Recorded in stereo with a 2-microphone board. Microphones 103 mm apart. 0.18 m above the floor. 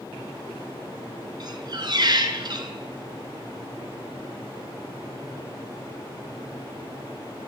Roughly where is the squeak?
Right.